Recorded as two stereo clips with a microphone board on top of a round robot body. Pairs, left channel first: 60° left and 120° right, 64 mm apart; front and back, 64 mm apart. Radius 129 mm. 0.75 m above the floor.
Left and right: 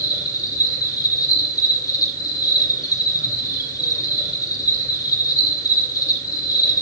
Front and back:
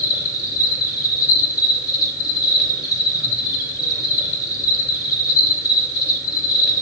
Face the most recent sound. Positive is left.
turn(degrees=35)